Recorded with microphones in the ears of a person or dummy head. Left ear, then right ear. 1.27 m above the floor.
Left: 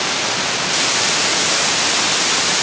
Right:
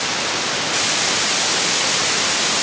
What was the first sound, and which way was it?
Only background noise.